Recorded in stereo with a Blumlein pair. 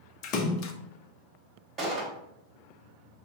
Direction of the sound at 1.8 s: 20° right.